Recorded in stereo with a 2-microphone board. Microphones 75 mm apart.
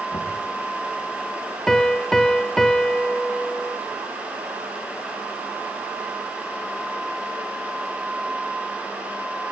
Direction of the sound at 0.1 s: 55° left (ahead or behind).